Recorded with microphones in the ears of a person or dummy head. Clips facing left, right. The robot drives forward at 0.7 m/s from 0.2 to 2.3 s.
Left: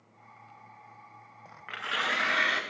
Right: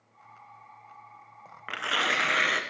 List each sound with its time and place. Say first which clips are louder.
1.7 s tearing paper: right 4 dB; 65° right (ahead or behind), 0.7 m; by 2.6 s 45° right (ahead or behind), 1.0 m